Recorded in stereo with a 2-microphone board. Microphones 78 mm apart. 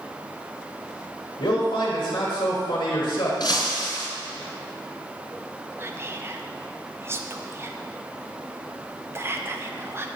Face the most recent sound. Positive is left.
turn(degrees=-30)  # may be behind; listen again after turning